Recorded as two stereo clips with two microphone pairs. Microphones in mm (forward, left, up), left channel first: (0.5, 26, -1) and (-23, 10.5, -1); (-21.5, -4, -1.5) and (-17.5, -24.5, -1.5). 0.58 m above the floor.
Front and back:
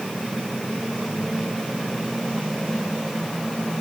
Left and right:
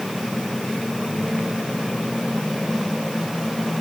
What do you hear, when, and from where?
Only background noise.